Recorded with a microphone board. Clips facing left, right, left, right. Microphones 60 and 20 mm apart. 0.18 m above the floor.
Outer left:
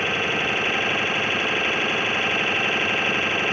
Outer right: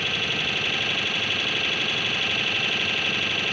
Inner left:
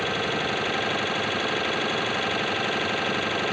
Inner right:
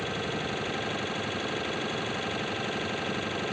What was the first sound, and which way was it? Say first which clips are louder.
An engine running: outer left 4 dB, inner left 6 dB; 30° left (ahead or behind).